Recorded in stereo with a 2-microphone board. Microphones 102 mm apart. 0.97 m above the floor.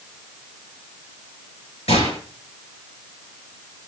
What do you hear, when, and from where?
1.9 s a gunshot: 85° left, 6.5 m